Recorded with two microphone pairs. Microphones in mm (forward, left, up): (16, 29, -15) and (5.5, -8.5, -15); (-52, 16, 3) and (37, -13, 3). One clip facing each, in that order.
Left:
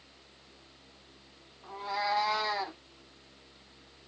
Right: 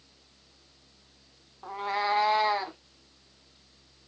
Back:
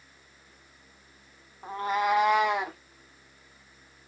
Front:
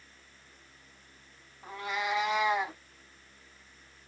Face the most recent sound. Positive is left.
turn(degrees=-175)